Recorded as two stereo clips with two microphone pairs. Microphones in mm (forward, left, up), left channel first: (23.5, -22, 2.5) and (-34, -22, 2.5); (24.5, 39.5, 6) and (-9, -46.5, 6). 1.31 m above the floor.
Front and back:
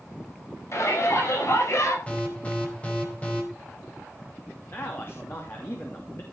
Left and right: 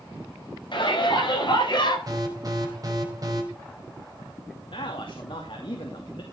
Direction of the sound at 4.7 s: 50° left.